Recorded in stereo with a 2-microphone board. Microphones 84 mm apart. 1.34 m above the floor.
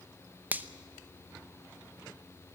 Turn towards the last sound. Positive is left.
turn(degrees=-20)  # may be behind; listen again after turning